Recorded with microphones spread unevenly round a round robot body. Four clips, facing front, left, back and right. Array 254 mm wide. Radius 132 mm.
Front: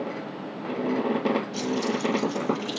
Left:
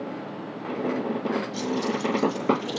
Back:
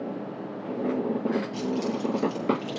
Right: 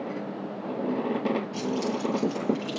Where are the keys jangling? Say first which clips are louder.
Left 1 dB, front 1 dB; 150° right, 10 m.